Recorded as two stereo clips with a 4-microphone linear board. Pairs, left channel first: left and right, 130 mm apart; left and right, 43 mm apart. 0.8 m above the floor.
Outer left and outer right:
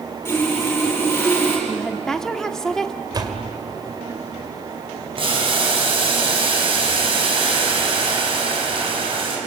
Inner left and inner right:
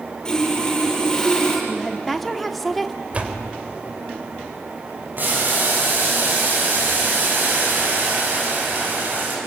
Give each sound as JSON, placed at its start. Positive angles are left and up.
{"t": 0.2, "sound": "sawing", "side_deg": 15, "distance_m": 8.5}
{"t": 1.7, "sound": "a woman speaking", "side_deg": 5, "distance_m": 1.6}
{"t": 3.1, "sound": "a door slam", "side_deg": -35, "distance_m": 2.5}
{"t": 5.2, "sound": "boiling", "side_deg": -45, "distance_m": 6.0}